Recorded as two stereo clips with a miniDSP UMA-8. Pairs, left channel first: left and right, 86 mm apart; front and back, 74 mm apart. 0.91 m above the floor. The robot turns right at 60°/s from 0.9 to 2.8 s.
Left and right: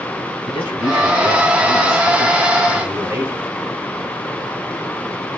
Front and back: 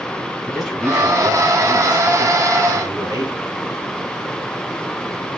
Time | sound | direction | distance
0.5 | a man speaking | 90° left | 5.5 m